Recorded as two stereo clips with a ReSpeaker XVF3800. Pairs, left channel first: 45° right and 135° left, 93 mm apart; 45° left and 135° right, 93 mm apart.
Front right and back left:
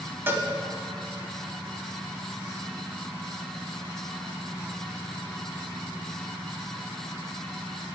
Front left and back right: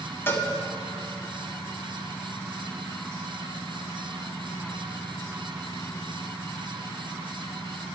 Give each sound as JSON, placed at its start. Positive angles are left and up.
{"t": 0.3, "sound": "a cowbell", "azimuth_deg": 90, "distance_m": 1.0}